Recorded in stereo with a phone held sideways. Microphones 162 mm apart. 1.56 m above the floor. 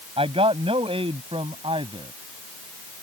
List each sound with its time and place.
0.2 s a man speaking: 35° right (ahead or behind); by 2.1 s 30° right (ahead or behind)